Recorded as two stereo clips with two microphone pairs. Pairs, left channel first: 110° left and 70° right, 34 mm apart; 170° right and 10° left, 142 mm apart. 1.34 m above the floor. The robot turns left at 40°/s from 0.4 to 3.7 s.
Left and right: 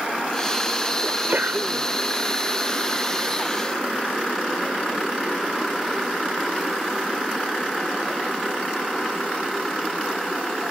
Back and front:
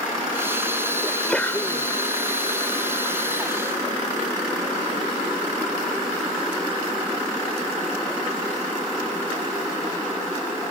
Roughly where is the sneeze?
Right.